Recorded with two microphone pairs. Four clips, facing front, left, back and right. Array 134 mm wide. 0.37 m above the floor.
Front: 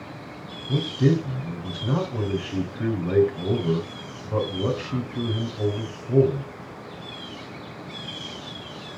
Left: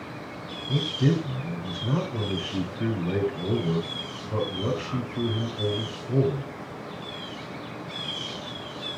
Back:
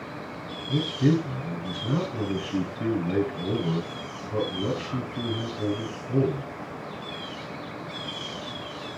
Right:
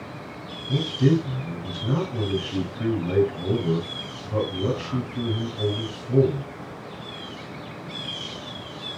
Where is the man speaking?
5° right, 3 m.